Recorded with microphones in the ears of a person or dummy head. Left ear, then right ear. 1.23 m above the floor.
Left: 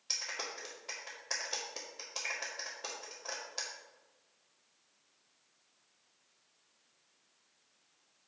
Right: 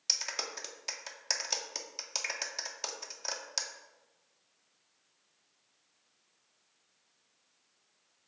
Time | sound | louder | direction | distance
0.1 | a clap | right 5 dB | 75° right (ahead or behind) | 1.9 m